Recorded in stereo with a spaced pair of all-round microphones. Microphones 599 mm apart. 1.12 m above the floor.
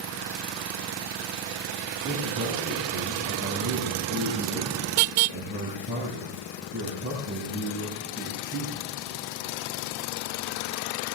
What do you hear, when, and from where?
2.0 s a man speaking: 20° right (ahead or behind), 6.5 m